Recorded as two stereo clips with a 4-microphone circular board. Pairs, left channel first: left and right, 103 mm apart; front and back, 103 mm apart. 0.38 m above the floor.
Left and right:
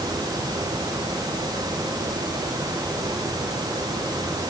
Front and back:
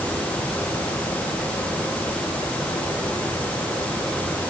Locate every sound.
Only background noise.